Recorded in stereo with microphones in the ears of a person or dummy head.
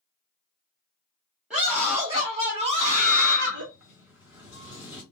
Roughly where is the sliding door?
Centre.